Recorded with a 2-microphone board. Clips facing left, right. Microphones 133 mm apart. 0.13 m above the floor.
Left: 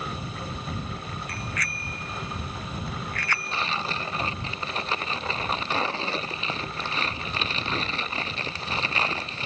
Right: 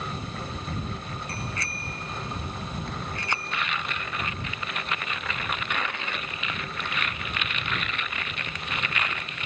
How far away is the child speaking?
I don't hear a child speaking.